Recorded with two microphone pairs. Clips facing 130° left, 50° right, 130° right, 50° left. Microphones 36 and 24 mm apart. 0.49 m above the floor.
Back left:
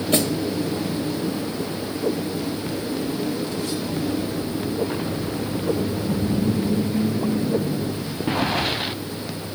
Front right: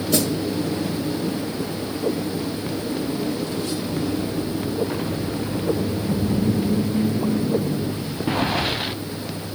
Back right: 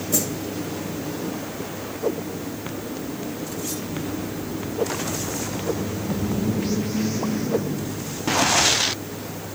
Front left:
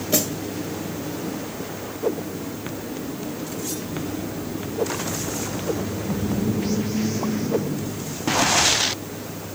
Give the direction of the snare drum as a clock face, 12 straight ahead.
9 o'clock.